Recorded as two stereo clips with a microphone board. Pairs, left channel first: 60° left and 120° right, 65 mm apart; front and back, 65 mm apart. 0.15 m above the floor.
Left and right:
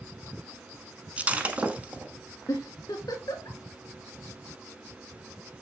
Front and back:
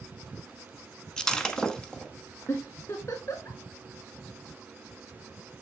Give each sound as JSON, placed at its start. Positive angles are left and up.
{"t": 1.2, "sound": "breaking glass", "azimuth_deg": -70, "distance_m": 0.8}
{"t": 2.5, "sound": "a giggle", "azimuth_deg": 35, "distance_m": 2.0}